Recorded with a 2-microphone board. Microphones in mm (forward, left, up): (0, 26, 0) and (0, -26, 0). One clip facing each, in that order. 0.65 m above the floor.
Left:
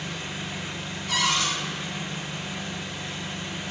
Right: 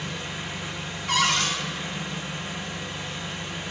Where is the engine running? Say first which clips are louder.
Right 1 dB; 55° right (ahead or behind), 3 m.